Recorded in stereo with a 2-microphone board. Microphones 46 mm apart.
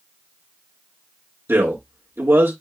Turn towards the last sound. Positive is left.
turn(degrees=-65)  # may be behind; listen again after turning